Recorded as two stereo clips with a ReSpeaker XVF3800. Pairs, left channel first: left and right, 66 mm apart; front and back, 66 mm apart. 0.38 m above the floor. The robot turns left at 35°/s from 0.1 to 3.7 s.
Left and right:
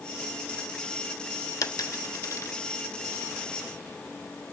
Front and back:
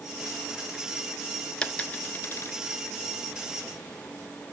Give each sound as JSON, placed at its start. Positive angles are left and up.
{"t": 1.6, "sound": "a dropped coin", "azimuth_deg": 75, "distance_m": 0.9}